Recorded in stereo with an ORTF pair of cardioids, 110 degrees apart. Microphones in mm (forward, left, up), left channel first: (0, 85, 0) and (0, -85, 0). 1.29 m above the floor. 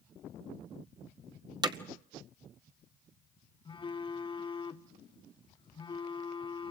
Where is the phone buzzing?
30° left, 1.7 m.